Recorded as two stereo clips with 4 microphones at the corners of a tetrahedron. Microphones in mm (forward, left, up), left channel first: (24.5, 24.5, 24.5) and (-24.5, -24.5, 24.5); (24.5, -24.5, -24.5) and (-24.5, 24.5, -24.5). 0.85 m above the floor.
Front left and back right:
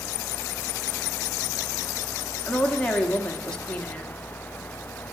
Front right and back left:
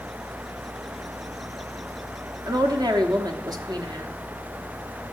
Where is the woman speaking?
120° left, 1.2 m.